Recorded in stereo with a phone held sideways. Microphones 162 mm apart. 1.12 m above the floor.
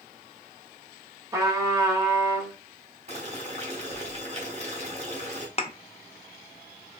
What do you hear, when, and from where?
1.3 s a trumpet: 20° right (ahead or behind), 1.2 m
3.1 s boiling: 45° right (ahead or behind), 1.1 m
5.6 s a thud: 40° left (ahead or behind), 0.5 m